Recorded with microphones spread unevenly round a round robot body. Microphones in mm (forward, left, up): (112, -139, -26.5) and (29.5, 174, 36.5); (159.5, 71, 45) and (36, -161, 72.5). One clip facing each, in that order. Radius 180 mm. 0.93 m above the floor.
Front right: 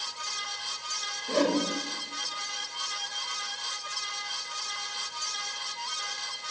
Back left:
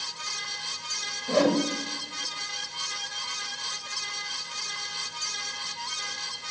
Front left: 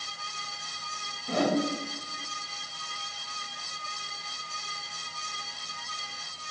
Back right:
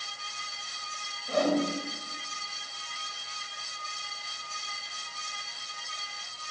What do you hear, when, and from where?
1.3 s a whoosh: 90° left, 3 m